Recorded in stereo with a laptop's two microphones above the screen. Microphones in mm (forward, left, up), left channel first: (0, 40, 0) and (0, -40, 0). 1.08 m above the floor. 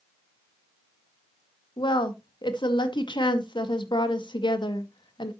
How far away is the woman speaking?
About 2.0 m.